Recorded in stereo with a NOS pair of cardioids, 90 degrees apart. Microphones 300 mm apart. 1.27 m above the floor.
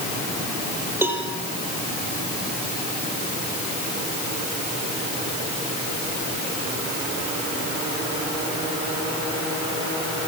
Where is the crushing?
I don't hear crushing.